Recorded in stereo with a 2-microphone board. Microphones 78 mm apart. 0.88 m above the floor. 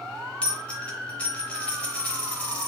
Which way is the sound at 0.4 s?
15° left (ahead or behind).